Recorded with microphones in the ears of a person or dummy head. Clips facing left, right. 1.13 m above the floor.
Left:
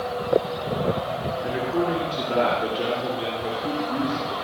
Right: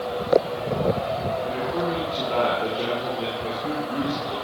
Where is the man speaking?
25° left (ahead or behind), 8 m; by 4.3 s 5° left (ahead or behind), 10.5 m.